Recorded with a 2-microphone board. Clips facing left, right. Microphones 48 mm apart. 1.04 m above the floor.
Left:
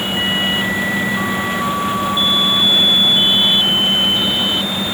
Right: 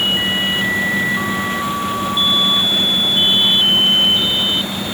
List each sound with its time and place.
Only background noise.